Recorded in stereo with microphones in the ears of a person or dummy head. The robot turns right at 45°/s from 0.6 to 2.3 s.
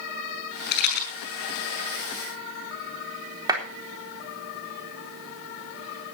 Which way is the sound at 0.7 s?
70° left (ahead or behind).